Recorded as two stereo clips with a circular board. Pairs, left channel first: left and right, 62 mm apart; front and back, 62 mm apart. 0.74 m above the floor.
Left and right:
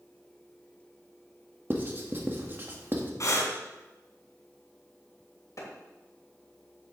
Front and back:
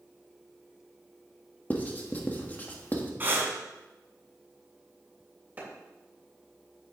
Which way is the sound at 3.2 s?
125° left.